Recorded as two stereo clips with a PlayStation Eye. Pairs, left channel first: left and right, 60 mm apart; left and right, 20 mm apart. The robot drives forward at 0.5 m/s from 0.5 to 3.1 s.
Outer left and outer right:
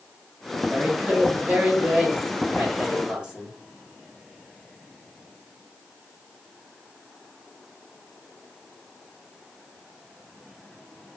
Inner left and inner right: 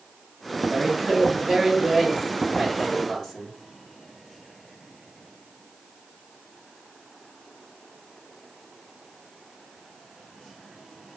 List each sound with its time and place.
0.7 s a woman speaking: 25° right (ahead or behind), 0.9 m; by 3.6 s 20° right (ahead or behind), 1.3 m